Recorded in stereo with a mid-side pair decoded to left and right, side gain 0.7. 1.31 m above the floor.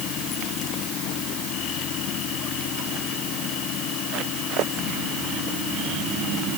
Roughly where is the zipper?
No zipper in this recording.